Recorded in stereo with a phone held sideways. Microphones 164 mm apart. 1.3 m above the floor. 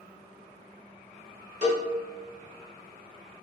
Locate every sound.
1.6 s a cowbell: 45° right (ahead or behind), 1.4 m